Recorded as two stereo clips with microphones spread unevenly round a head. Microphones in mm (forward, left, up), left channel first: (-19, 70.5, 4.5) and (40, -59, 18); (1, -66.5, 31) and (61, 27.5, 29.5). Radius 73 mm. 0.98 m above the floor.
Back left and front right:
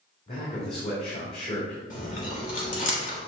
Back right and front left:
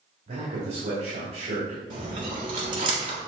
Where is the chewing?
80° left, 1.7 m.